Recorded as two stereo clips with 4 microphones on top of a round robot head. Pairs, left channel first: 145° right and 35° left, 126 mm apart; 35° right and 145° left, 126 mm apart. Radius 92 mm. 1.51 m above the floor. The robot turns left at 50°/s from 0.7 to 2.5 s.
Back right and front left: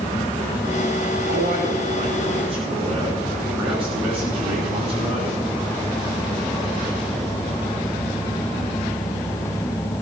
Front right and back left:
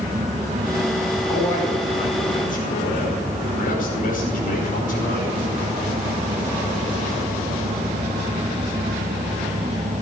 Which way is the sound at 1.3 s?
45° left.